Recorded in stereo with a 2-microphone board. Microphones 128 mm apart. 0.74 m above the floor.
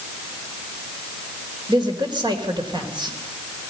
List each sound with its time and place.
1.7 s a man speaking: 35° right (ahead or behind), 3 m